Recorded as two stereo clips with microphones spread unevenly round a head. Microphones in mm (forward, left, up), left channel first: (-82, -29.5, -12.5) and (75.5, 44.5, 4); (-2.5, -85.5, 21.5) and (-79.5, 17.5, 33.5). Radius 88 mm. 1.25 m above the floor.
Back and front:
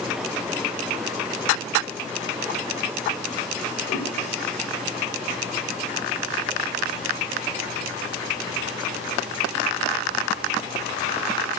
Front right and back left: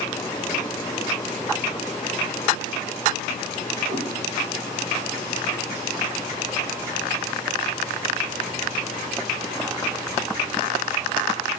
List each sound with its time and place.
3.9 s a cat meowing: 160° left, 2.5 m